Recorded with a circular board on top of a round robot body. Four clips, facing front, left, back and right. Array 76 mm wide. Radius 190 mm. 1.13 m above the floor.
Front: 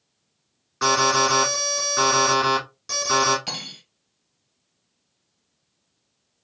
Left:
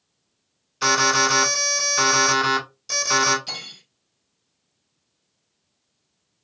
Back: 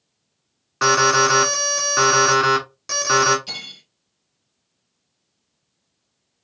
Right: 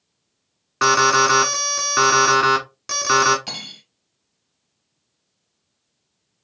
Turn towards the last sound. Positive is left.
turn(degrees=-40)